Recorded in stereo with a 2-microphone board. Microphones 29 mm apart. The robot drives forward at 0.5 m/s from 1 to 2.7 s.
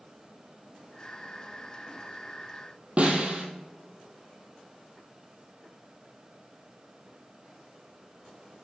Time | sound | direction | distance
3.0 | a snare drum | 45° right (ahead or behind) | 2 m